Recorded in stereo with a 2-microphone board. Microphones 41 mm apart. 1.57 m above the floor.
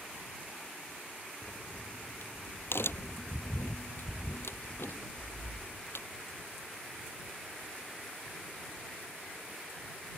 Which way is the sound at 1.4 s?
75° left (ahead or behind).